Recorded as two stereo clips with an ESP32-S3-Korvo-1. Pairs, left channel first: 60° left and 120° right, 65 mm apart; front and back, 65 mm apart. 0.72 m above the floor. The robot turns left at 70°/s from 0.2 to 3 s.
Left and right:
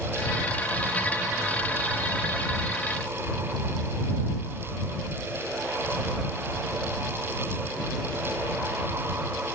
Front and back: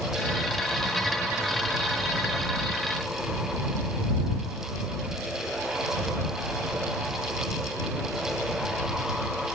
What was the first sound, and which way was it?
Only background noise.